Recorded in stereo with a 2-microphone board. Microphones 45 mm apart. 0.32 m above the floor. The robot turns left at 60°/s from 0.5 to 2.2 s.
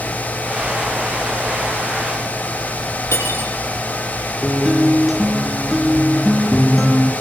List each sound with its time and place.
3.1 s cutlery clinking: 75° left (ahead or behind), 7.5 m
4.4 s a guitar: 10° right (ahead or behind), 5 m